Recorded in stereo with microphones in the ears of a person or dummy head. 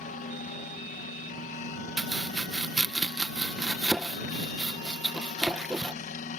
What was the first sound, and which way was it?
A helicopter, 45° left (ahead or behind).